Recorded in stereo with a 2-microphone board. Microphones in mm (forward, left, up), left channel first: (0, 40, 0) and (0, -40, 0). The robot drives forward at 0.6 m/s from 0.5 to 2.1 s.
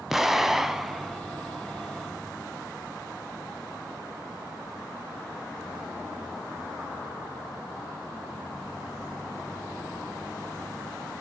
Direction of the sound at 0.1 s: 5° right (ahead or behind).